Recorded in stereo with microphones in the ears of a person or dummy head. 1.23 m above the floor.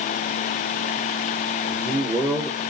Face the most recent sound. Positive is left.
turn(degrees=-30)  # may be behind; listen again after turning